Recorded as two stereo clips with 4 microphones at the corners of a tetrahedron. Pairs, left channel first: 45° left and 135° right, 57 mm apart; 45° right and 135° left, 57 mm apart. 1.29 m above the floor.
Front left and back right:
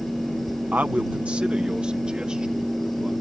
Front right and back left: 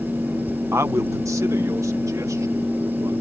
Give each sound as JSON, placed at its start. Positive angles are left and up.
{"t": 0.7, "sound": "a man speaking", "azimuth_deg": 165}